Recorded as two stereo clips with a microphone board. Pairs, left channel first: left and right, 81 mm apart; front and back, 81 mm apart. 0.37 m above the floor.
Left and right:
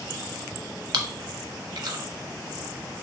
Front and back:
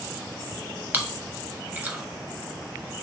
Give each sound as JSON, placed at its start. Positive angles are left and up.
{"t": 0.9, "sound": "chewing", "azimuth_deg": -115, "distance_m": 0.6}